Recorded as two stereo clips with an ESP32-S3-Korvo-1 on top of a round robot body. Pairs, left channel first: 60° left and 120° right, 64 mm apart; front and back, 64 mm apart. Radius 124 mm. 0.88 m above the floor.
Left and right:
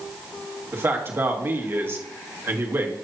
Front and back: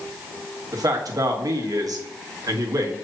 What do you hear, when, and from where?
0.7 s a man speaking: 170° right, 1.7 m